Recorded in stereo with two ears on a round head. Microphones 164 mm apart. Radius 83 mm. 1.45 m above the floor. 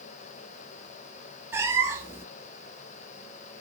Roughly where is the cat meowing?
Centre.